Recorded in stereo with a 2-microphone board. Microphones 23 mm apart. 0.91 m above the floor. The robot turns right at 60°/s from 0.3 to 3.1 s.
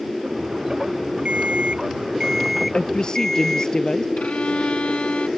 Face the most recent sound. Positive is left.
turn(degrees=70)  # may be behind; listen again after turning